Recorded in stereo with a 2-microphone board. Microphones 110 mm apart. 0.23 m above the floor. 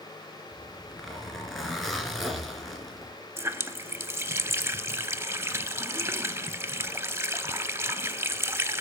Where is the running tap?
25° right (ahead or behind), 0.7 m.